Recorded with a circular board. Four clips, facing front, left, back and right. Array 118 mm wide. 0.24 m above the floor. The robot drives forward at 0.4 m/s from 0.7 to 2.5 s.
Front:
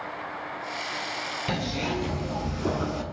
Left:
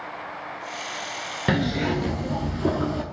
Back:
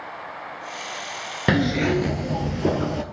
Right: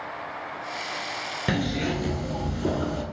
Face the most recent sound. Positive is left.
turn(degrees=170)